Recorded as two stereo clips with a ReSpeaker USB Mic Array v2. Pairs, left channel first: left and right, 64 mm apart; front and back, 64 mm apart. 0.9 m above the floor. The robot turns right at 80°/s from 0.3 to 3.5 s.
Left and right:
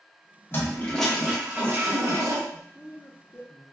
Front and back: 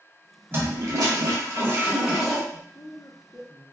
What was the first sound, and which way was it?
A toilet flushing, 130° left.